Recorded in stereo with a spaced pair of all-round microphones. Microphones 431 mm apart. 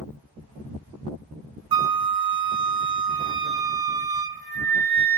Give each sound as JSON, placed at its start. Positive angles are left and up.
{"t": 1.7, "sound": "a flute", "side_deg": -55, "distance_m": 0.5}